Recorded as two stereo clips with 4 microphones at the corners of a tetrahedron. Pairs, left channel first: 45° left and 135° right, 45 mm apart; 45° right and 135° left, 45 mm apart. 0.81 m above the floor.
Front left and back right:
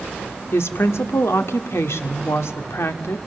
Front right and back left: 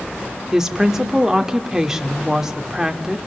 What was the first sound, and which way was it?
A woman speaking, 55° left.